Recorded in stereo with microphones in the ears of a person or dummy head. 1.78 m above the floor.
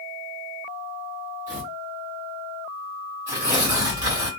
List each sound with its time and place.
1.5 s tearing paper: 20° right (ahead or behind), 1.5 m
3.3 s tearing paper: 20° right (ahead or behind), 1.8 m